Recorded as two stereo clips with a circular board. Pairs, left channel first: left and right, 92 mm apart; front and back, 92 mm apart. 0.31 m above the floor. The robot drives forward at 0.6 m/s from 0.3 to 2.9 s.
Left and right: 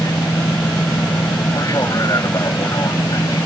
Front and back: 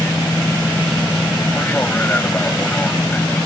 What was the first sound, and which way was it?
An aircraft, 65° left.